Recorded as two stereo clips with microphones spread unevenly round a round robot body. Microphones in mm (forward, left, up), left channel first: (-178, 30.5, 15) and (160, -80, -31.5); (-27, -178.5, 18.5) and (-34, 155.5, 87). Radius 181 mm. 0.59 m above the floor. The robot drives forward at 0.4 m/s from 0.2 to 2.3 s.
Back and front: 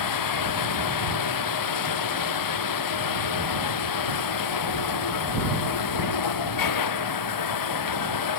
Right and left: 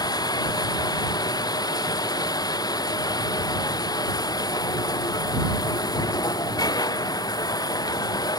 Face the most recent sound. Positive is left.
turn(degrees=-165)